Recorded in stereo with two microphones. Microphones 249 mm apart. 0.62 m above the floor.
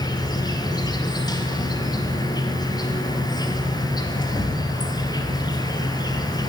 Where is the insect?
15° left (ahead or behind), 1.5 m.